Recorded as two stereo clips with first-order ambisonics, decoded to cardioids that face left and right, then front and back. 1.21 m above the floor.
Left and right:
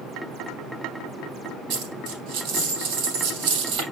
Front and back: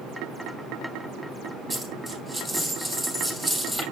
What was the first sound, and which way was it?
A dropped coin, 105° right.